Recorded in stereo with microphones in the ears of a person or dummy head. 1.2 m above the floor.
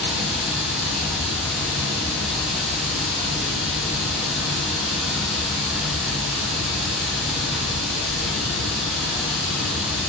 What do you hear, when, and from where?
0.0 s running water: 5° right (ahead or behind), 0.8 m